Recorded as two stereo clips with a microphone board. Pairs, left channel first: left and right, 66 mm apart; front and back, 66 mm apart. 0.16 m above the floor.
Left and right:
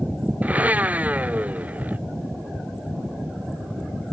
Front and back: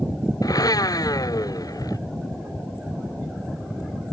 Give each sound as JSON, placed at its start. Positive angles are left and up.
{"t": 0.4, "sound": "a blender", "azimuth_deg": -20}